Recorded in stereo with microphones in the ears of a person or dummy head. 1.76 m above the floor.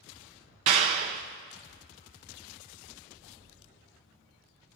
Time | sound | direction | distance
0.7 | a clap | 30° right (ahead or behind) | 0.7 m